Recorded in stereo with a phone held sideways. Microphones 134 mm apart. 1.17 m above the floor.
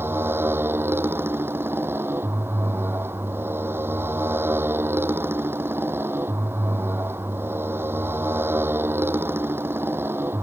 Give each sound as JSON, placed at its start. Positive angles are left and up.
{"t": 0.0, "sound": "a motorcycle", "side_deg": -15}